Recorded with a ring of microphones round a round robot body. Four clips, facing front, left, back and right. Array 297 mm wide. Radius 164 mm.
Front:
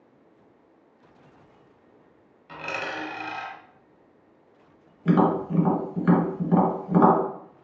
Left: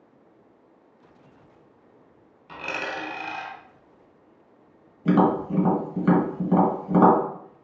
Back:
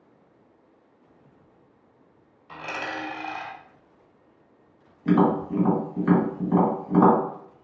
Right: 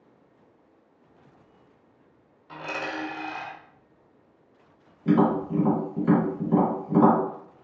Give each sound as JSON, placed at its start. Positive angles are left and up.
{"t": 2.5, "sound": "a dropped coin", "azimuth_deg": 55, "distance_m": 1.4}
{"t": 5.0, "sound": "tapping", "azimuth_deg": 60, "distance_m": 1.5}